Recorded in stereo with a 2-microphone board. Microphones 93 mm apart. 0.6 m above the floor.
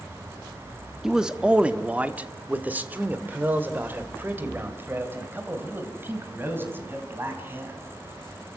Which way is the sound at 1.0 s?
5° right (ahead or behind).